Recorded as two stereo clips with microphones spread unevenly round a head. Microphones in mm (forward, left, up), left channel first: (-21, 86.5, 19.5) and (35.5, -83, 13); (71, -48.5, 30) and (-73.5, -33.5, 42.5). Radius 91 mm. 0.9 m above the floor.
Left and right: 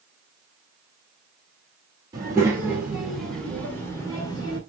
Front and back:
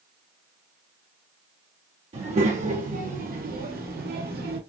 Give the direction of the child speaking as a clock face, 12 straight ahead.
5 o'clock.